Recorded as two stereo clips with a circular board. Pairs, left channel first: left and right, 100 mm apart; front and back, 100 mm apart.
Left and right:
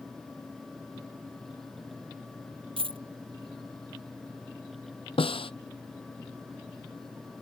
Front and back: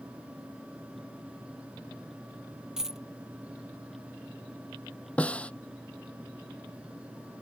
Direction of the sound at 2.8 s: 95° right.